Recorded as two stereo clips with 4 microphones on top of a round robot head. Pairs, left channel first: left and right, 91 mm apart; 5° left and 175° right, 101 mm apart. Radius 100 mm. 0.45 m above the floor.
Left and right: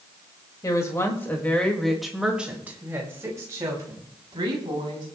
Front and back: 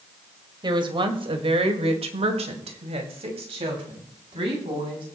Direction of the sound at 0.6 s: 145° left.